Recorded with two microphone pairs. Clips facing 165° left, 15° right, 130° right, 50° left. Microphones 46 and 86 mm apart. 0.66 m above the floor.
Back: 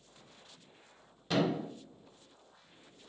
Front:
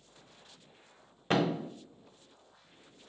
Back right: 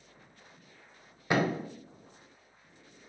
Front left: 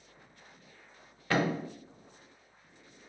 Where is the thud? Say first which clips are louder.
Front 2 dB, back right 1 dB; 60° right, 0.5 m.